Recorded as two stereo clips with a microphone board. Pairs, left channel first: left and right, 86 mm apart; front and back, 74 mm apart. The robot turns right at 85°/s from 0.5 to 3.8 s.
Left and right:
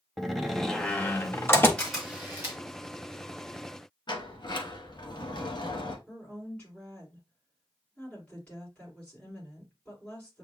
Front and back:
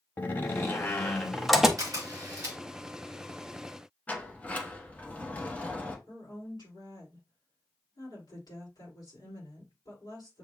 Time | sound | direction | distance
0.2 | a door slam | 5° left | 0.7 m
1.8 | a camera shutter | 170° left | 1.9 m
4.1 | a sliding door | 70° left | 0.9 m
6.1 | a woman speaking | 15° left | 3.5 m